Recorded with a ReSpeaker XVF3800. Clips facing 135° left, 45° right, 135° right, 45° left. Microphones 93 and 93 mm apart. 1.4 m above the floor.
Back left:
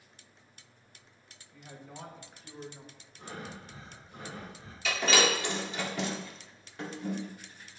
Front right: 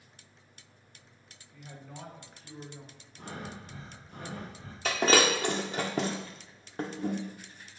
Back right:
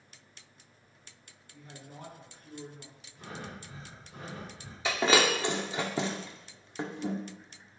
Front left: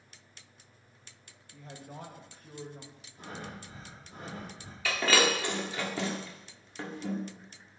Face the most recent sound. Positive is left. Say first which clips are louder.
# front right 3 dB, back right 2 dB
turn(degrees=-75)